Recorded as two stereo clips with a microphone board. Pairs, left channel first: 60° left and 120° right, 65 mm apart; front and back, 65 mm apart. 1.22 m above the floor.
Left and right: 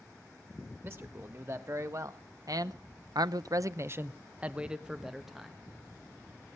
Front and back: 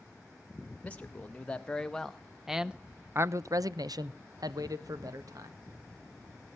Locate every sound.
0.8 s a man speaking: 70° right, 1.5 m; by 5.6 s 150° left, 1.3 m